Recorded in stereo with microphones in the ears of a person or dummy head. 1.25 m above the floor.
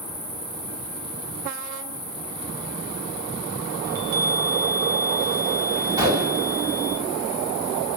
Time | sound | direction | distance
0.0 | an insect | 10° right (ahead or behind) | 4 m
3.8 | a chime | 50° right (ahead or behind) | 7 m
6.0 | a gunshot | 25° right (ahead or behind) | 6 m